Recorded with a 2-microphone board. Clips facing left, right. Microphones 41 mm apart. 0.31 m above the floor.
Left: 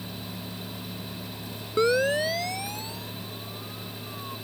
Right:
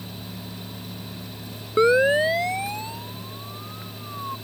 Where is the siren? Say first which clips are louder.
Right 5 dB; 25° right (ahead or behind); by 4.3 s 35° right (ahead or behind).